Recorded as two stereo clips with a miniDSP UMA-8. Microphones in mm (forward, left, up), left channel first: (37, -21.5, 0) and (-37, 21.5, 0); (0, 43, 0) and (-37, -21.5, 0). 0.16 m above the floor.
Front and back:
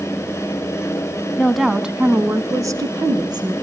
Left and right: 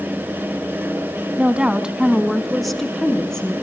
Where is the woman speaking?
90° right, 1.0 m; by 3.5 s 140° left, 1.8 m.